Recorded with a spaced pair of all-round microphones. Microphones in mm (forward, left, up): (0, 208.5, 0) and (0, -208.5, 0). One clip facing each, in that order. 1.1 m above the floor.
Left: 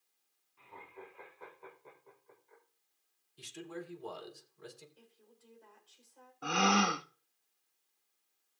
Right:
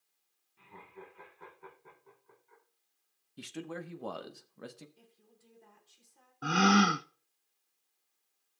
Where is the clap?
No clap in this recording.